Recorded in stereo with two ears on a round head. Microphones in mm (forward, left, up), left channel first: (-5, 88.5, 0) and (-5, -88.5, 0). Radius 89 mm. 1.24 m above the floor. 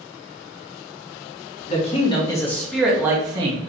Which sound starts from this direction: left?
A man speaking, at 1.7 s.